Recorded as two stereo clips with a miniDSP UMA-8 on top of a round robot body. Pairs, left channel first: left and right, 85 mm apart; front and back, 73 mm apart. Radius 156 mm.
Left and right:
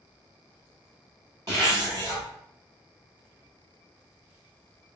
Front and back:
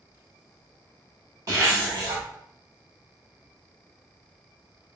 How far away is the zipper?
About 0.8 m.